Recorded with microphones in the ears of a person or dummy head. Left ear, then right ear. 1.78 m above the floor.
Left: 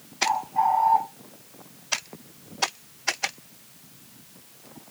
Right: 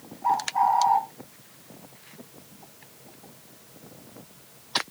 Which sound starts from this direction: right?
A bird, at 0.2 s.